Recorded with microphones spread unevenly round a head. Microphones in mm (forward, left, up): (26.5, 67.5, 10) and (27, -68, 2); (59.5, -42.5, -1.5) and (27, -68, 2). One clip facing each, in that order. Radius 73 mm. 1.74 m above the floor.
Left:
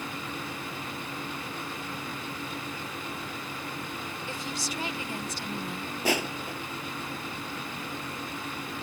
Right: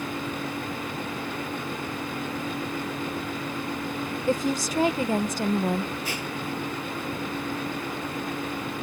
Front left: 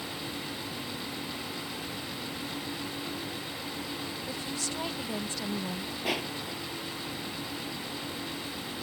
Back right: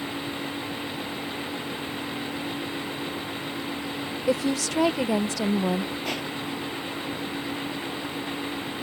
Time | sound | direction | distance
4.3 | a woman speaking | 145° right | ?
6.0 | crushing | 130° left | ?